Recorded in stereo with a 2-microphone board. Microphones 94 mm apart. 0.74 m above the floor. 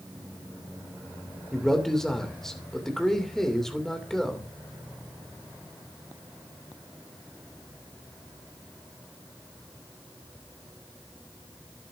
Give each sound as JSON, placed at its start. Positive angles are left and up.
{"t": 1.5, "sound": "a man speaking", "side_deg": 5, "distance_m": 2.5}